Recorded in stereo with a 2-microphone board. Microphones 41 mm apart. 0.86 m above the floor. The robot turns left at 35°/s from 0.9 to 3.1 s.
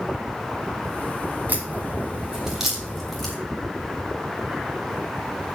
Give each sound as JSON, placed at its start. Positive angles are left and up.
{"t": 1.5, "sound": "a crack", "side_deg": -45, "distance_m": 2.5}